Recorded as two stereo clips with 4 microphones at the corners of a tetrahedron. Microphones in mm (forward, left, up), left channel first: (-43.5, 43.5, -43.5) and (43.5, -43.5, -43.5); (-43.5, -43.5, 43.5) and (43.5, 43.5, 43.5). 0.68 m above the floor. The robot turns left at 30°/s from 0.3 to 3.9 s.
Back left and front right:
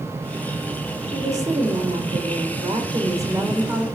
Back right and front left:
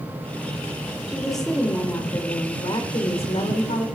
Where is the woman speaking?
40° right, 3 m; by 3.9 s 125° right, 3 m.